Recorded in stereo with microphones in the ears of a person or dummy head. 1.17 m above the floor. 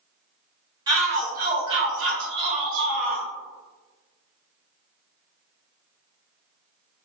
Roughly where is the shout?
Right.